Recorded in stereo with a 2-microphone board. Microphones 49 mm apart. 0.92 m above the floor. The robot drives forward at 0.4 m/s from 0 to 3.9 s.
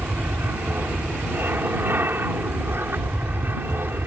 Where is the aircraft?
50° right (ahead or behind).